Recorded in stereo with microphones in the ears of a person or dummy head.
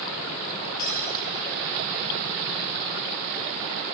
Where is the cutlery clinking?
50° left (ahead or behind), 2.0 m.